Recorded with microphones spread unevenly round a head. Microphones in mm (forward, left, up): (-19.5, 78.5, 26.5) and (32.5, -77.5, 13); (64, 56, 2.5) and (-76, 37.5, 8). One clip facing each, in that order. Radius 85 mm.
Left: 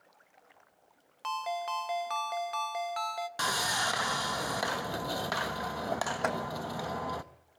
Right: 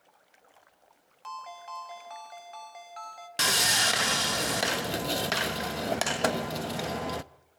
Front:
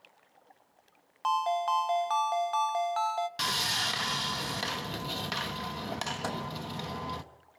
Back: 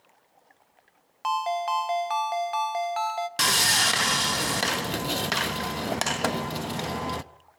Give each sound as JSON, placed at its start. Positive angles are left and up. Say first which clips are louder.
{"t": 1.2, "sound": "a ringtone", "louder": "left 8 dB, back 2 dB", "azimuth_deg": 105, "distance_m": 0.8}
{"t": 3.4, "sound": "sawing", "louder": "right 6 dB, back 7 dB", "azimuth_deg": -135, "distance_m": 0.7}
{"t": 6.2, "sound": "a microwave", "louder": "right 5 dB, back 8 dB", "azimuth_deg": -125, "distance_m": 1.2}